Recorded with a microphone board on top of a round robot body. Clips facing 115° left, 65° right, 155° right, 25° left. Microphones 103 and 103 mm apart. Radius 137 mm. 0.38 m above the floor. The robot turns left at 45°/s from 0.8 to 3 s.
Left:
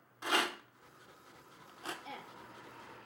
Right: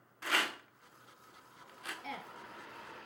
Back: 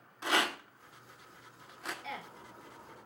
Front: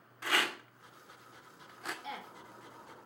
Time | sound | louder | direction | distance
0.2 | a rattle | left 2 dB, back 2 dB | 160° left | 1.1 m
2.0 | a woman speaking | right 3 dB, back 1 dB | 60° right | 3.5 m